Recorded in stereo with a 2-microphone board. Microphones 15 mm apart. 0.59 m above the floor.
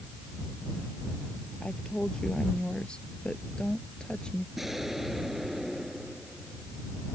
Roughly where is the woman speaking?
Left.